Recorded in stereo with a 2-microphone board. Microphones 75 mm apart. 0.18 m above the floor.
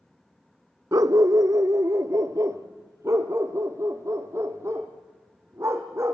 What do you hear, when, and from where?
0.9 s a dog barking: 55° right (ahead or behind), 0.6 m; by 6.2 s 40° right (ahead or behind), 3 m